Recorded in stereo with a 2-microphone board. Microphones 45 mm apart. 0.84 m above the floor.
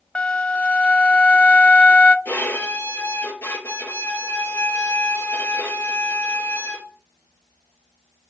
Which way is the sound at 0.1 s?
25° left (ahead or behind).